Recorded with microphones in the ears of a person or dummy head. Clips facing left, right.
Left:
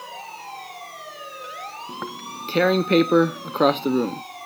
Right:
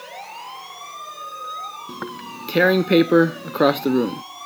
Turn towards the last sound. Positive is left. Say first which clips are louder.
# right 4 dB
turn(degrees=-10)  # may be behind; listen again after turning